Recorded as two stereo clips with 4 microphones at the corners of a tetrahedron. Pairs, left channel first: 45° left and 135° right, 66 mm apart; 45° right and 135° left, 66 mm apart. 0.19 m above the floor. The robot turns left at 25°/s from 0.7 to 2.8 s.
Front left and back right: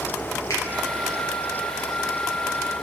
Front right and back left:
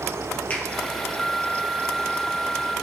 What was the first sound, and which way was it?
A finger snap, 20° left.